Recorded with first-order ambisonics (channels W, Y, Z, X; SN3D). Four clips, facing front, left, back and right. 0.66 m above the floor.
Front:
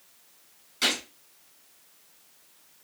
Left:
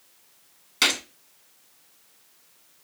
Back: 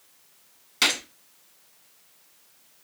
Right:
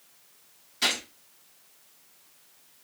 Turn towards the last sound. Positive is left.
turn(degrees=130)